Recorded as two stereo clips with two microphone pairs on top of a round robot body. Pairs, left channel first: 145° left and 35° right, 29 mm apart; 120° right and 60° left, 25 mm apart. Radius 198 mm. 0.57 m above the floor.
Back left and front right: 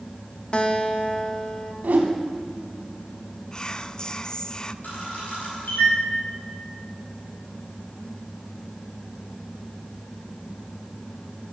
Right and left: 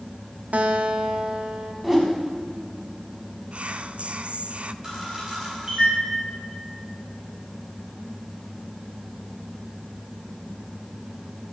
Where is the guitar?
85° left, 1.0 m.